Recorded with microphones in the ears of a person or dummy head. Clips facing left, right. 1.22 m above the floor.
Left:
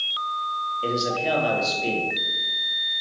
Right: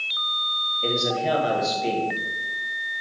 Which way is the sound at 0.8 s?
5° left (ahead or behind).